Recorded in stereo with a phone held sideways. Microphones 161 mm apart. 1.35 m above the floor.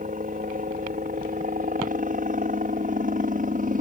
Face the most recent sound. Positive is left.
turn(degrees=-55)  # may be behind; listen again after turning